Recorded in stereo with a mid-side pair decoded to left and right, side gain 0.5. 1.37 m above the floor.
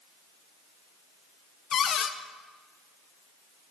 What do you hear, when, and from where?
1.7 s a cupboard door: 50° left, 0.9 m